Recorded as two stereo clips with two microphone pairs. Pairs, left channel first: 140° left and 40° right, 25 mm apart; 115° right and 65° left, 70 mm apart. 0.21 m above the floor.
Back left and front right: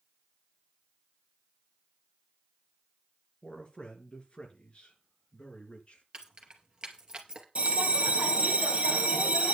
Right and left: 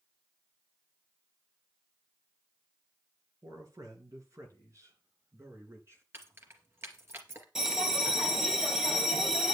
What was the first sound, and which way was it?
A man speaking, 95° left.